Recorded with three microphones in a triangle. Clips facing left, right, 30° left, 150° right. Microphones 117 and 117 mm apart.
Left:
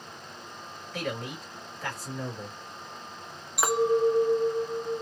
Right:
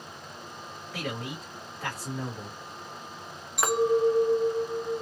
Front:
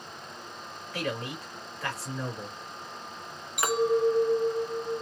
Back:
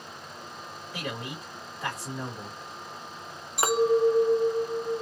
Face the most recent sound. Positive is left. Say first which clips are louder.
# even, back 2 dB
turn(degrees=175)